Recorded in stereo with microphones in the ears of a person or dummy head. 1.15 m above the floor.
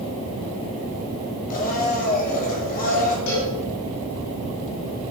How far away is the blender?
About 2.5 m.